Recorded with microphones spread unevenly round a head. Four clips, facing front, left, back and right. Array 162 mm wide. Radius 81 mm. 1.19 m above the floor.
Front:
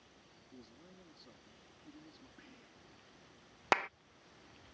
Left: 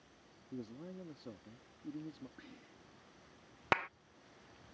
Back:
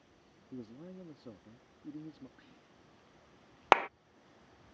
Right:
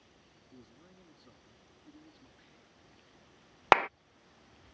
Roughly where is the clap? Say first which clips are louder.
Right 11 dB, back 7 dB; behind right.